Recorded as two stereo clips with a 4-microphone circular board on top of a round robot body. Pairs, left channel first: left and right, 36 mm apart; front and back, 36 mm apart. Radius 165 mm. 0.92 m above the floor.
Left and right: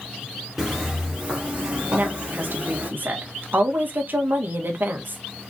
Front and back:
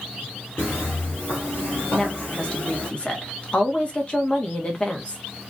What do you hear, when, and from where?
0.6 s footsteps: 5° right, 1.2 m; by 2.9 s 40° right, 2 m
1.9 s a woman speaking: 60° right, 1.8 m